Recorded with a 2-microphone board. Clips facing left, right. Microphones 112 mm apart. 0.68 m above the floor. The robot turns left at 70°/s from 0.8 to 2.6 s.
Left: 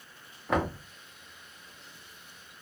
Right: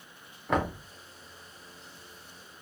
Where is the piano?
I don't hear a piano.